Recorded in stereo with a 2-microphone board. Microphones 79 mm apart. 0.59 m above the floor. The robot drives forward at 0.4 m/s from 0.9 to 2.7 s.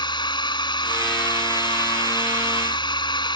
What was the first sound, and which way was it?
A drone, 70° left (ahead or behind).